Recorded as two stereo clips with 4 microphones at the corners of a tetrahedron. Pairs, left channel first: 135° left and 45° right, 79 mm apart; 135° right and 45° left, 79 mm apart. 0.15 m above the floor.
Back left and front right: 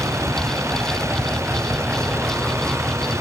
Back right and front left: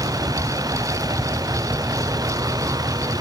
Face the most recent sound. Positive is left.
turn(degrees=10)